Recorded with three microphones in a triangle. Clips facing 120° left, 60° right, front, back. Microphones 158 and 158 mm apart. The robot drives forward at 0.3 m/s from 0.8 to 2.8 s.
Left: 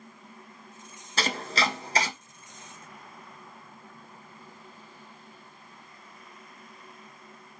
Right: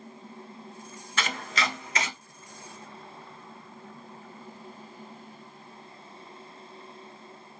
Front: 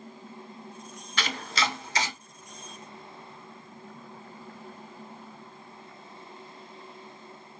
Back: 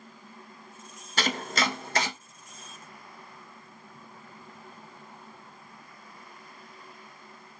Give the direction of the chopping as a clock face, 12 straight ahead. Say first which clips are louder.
Left 3 dB, back 2 dB; 7 o'clock.